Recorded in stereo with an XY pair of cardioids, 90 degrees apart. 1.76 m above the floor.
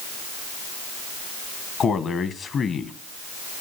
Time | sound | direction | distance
1.8 | a man speaking | 60° left | 1.6 m